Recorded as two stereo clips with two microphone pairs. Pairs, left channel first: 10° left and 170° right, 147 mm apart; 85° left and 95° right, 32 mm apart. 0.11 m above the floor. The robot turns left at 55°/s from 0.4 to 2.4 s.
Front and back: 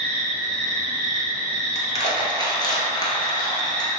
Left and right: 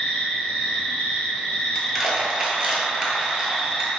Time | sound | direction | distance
0.0 | an insect | 115° left | 0.9 m
1.8 | crushing | 5° right | 0.5 m